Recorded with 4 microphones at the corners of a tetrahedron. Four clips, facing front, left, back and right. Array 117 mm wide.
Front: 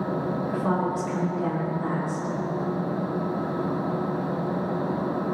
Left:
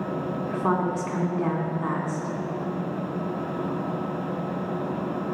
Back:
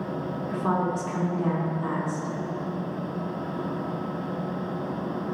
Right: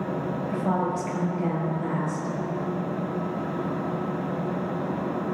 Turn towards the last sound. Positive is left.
turn(degrees=105)